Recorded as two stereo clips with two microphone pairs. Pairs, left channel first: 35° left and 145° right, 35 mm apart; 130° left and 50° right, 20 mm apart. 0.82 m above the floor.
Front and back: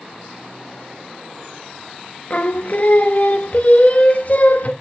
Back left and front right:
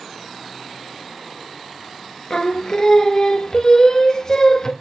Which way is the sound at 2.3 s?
75° left.